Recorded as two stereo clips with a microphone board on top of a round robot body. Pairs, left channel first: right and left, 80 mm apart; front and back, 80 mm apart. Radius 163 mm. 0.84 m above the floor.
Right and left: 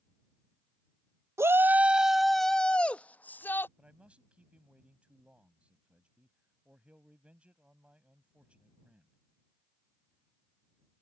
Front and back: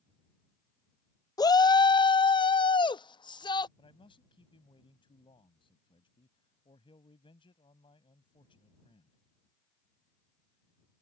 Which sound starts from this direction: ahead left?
A shout, at 1.4 s.